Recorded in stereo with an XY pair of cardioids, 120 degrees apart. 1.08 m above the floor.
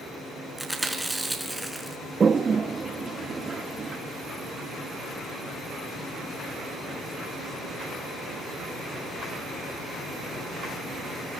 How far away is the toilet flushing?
About 1.2 m.